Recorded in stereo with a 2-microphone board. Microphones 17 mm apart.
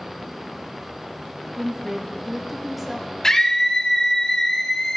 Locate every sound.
1.6 s a woman speaking: 10° right (ahead or behind), 0.6 m
3.2 s a scream: 30° left (ahead or behind), 0.7 m